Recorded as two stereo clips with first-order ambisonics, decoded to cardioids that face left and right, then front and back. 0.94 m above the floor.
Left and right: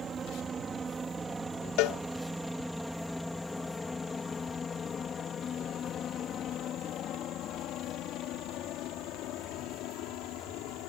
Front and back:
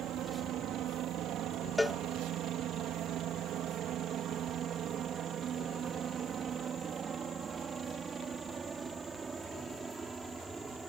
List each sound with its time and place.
0.0 s a helicopter: 150° right; by 10.9 s 105° left
1.8 s a cowbell: 85° left